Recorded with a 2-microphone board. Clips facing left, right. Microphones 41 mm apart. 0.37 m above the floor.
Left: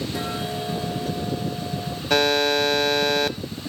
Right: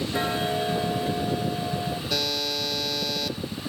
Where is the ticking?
25° right (ahead or behind), 1.1 m.